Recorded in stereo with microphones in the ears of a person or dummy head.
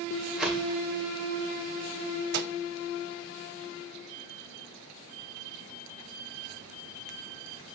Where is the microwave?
45° right (ahead or behind), 0.8 m.